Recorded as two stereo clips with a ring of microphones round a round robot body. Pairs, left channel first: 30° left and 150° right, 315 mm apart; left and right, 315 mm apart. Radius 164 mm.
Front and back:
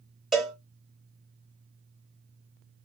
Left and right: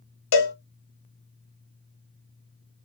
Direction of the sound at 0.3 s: 120° left.